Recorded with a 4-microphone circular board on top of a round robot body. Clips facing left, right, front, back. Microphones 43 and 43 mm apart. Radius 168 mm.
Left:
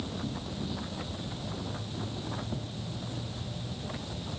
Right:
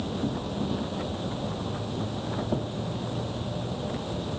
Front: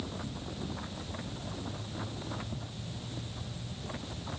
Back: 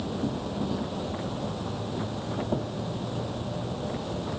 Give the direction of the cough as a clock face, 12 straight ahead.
I don't hear a cough.